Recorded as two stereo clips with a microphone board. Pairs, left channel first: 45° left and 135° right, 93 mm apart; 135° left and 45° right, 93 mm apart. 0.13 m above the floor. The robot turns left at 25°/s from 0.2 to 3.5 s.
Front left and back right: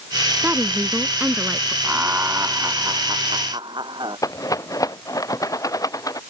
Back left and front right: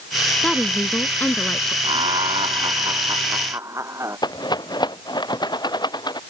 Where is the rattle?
95° left.